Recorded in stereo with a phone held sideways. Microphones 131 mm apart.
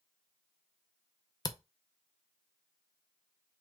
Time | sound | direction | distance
1.4 | a camera shutter | 30° left (ahead or behind) | 0.5 m